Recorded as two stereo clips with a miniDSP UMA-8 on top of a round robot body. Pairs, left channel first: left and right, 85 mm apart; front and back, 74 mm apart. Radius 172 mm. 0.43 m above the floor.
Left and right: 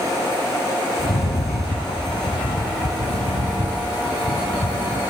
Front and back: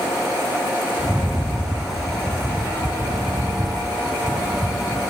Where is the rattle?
90° left, 2.5 m.